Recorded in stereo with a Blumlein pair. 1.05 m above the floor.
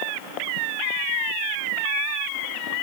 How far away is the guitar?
No guitar in this recording.